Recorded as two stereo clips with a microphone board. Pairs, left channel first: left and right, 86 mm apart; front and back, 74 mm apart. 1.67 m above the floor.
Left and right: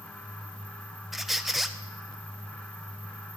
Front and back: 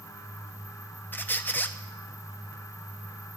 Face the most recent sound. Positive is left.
turn(degrees=-5)